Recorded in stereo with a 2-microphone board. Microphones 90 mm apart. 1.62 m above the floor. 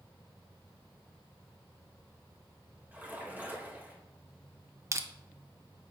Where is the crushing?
35° right (ahead or behind), 0.6 m.